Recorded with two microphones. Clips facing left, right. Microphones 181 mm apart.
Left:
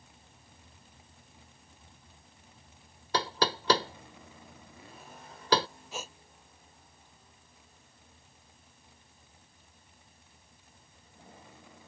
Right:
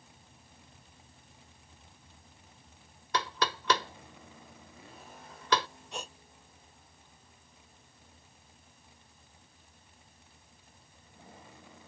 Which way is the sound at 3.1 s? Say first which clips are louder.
Left 3 dB; 35° left (ahead or behind).